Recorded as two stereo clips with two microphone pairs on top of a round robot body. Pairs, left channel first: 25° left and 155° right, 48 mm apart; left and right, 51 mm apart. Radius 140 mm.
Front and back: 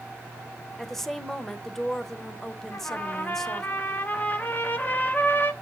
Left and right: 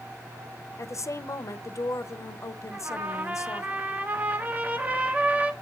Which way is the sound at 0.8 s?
105° left.